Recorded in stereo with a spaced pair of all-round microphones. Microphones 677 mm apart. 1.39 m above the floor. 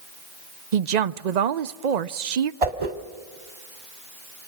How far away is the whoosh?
About 1.6 m.